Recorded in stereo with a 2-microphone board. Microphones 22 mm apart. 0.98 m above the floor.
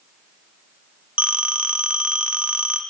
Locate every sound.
1.2 s a phone ringing: 70° right (ahead or behind), 1.2 m